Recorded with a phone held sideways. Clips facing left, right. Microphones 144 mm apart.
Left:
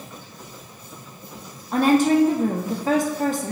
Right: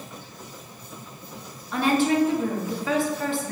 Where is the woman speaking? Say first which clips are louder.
Left 5 dB; 45° left (ahead or behind), 1.0 m.